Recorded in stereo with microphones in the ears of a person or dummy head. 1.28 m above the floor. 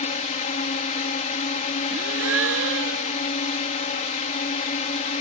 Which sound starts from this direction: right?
A gasp, at 1.9 s.